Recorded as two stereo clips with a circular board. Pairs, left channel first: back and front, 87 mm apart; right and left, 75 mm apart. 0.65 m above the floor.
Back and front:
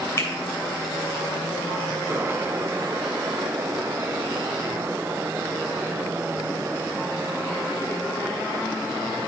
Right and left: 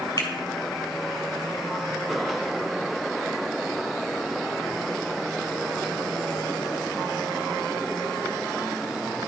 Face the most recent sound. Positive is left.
turn(degrees=-120)